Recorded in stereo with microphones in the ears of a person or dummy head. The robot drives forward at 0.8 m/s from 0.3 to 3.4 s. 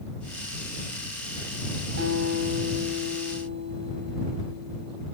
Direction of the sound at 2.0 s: 80° right.